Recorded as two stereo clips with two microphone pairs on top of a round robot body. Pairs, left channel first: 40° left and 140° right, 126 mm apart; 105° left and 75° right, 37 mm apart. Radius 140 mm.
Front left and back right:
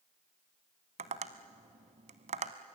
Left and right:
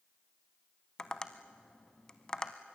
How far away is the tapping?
About 0.7 m.